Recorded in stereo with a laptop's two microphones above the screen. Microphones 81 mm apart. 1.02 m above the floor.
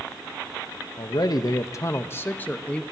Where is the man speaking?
60° left (ahead or behind), 0.9 m; by 2.8 s 15° left (ahead or behind), 1.3 m.